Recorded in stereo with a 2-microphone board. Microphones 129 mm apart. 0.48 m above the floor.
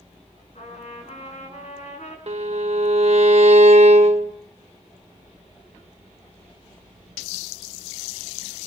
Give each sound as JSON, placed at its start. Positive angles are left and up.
{"t": 0.6, "sound": "a trumpet", "side_deg": 60, "distance_m": 5.0}
{"t": 2.3, "sound": "a violin", "side_deg": -55, "distance_m": 0.8}